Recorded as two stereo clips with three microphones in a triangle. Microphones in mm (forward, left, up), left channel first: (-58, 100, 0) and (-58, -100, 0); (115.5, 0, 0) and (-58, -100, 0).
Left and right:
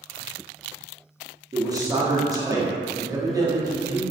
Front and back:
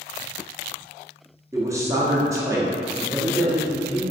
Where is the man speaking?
110° right, 0.6 m.